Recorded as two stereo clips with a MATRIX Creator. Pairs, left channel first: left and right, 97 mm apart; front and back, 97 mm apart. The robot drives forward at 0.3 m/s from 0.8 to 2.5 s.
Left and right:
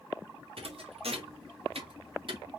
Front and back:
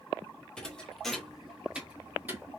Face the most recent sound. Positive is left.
turn(degrees=-115)